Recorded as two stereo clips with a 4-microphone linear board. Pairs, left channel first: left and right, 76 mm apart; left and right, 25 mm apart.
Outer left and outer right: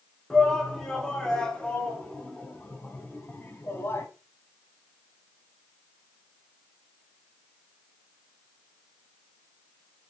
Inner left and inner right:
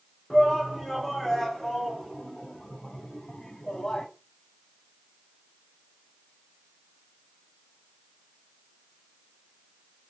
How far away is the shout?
About 5 m.